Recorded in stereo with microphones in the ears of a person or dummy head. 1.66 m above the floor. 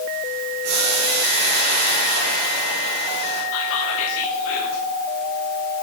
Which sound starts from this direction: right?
Boiling, at 0.6 s.